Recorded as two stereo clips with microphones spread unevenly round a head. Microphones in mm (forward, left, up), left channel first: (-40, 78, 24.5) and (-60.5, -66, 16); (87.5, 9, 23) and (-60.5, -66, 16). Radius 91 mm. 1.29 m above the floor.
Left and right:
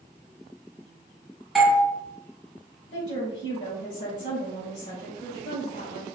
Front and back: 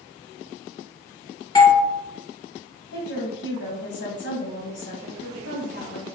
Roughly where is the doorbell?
Ahead.